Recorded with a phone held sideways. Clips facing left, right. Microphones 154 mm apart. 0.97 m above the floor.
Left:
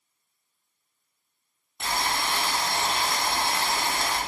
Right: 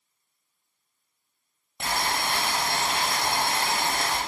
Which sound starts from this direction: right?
Boiling, at 1.8 s.